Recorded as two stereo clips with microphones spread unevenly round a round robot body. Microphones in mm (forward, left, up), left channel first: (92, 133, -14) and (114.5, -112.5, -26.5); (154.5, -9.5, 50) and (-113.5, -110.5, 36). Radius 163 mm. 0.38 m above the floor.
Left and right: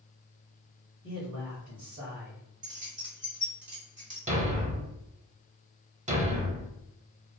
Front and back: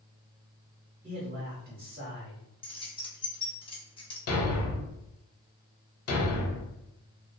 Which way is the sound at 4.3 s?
20° right.